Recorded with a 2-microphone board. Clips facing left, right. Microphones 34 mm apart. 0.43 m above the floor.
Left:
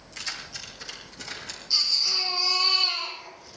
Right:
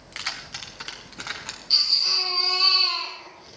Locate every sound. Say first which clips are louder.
0.1 s keys jangling: right 3 dB; 55° right (ahead or behind), 2.5 m; by 1.6 s 70° right (ahead or behind), 3.5 m
1.7 s a baby crying: right 3 dB; 55° right (ahead or behind), 5 m